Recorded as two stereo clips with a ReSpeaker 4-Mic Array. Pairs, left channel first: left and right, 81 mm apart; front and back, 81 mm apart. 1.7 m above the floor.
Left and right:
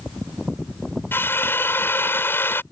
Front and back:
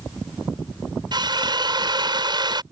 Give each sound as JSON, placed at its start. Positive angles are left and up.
{"t": 1.1, "sound": "a drill", "azimuth_deg": 150}